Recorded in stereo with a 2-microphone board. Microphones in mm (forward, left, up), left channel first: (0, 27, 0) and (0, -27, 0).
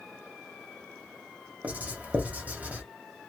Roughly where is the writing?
Right.